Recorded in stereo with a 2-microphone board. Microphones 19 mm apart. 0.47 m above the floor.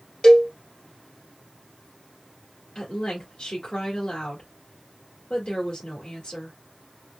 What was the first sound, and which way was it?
A cowbell, 40° left (ahead or behind).